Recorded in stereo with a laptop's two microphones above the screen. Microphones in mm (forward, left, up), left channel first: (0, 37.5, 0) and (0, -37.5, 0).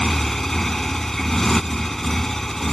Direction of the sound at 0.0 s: 5° left (ahead or behind).